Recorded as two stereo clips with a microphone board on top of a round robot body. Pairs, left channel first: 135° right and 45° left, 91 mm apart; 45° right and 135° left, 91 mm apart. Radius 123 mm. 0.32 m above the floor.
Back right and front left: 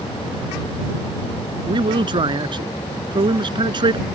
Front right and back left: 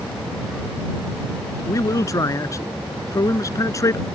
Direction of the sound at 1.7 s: 10° left.